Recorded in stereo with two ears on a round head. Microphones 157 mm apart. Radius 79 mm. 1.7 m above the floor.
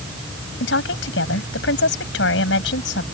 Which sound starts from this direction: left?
A woman speaking, at 0.6 s.